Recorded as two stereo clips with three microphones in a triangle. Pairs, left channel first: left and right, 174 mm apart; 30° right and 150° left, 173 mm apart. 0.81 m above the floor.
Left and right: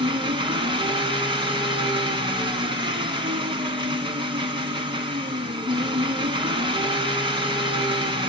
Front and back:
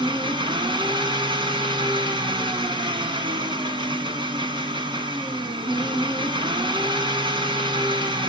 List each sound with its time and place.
0.0 s an engine running: 150° right, 2 m